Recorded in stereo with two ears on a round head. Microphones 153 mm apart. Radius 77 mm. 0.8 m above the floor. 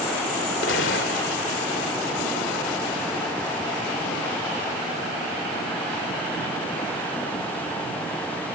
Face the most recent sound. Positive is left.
turn(degrees=75)  # may be behind; listen again after turning